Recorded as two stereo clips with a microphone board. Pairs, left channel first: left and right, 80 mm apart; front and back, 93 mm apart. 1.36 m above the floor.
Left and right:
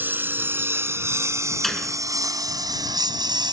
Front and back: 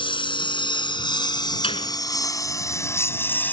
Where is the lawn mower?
25° right; by 3.5 s 70° right.